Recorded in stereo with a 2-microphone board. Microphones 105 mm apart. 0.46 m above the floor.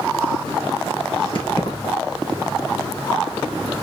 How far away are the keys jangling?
About 4.5 m.